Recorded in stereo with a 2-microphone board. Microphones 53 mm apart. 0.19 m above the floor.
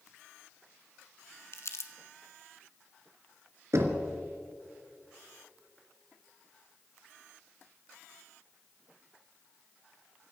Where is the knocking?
65° right (ahead or behind), 1.6 m.